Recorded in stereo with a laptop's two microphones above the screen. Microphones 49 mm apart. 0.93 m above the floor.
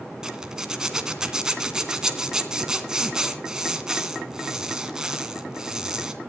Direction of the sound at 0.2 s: 10° right (ahead or behind).